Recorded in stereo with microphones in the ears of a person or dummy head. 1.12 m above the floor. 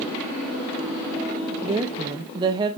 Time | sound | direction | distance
1.6 | a woman speaking | 20° right (ahead or behind) | 0.5 m